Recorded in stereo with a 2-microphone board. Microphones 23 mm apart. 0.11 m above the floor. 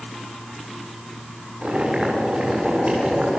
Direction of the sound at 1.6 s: 55° right (ahead or behind).